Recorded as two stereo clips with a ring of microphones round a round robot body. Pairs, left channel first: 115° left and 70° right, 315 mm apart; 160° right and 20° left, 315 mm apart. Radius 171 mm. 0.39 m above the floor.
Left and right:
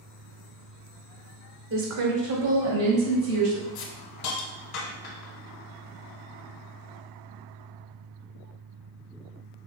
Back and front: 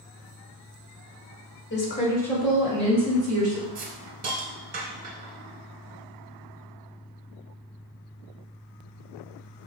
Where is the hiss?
85° left, 1.0 m.